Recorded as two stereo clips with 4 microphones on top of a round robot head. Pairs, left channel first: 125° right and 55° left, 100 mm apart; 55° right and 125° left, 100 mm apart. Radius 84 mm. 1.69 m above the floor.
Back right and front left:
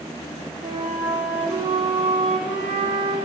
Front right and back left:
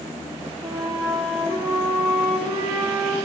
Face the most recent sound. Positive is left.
turn(degrees=85)